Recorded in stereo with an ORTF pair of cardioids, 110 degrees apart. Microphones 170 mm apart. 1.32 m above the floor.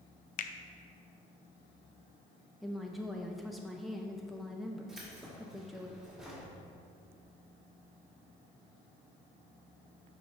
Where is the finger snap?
55° left, 0.6 m.